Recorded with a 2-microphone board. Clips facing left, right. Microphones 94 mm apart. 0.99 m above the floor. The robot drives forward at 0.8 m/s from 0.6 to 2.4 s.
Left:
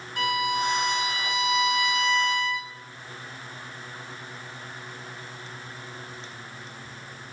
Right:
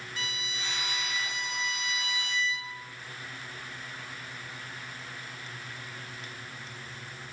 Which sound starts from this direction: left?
A violin, at 0.2 s.